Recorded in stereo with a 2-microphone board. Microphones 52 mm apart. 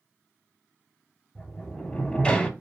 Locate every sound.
1.4 s a sliding door: 20° left (ahead or behind), 1.3 m